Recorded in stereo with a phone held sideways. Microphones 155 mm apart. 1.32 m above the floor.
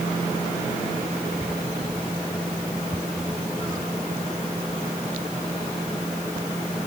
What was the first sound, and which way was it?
Only background noise.